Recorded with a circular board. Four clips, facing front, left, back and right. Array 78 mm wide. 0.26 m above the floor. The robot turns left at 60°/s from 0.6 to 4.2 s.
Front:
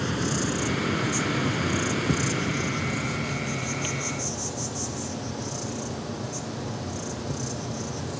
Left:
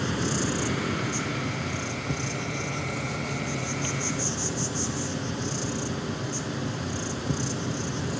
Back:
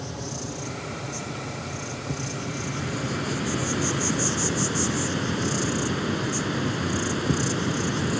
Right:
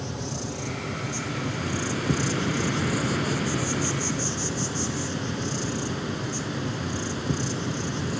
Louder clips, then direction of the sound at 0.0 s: Left 5 dB, front 7 dB; 45° left.